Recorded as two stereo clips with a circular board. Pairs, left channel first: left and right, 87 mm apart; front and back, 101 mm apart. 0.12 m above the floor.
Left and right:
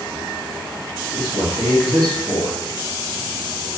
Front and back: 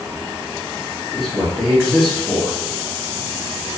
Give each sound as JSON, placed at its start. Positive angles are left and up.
{"t": 1.1, "sound": "a man speaking", "azimuth_deg": 85, "distance_m": 1.4}